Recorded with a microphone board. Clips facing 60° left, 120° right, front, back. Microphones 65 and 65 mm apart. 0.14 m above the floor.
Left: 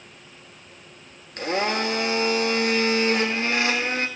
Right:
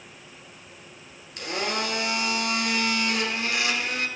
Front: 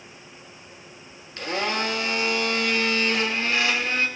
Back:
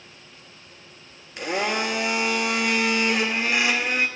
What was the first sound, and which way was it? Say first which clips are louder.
A blender: left 5 dB, back 1 dB; 110° left.